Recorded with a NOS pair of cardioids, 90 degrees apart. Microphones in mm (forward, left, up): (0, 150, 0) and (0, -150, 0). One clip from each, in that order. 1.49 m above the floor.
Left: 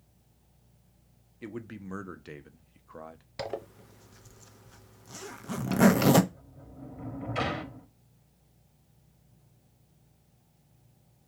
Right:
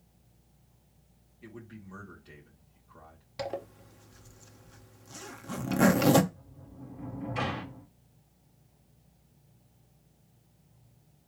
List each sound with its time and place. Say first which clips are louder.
1.4 s a man speaking: left 7 dB; 70° left, 0.9 m
3.4 s a zipper: even; 10° left, 0.7 m
6.3 s a sliding door: left 2 dB; 25° left, 1.3 m